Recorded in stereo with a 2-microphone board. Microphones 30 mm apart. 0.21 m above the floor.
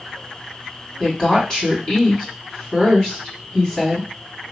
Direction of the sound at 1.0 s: 30° left (ahead or behind).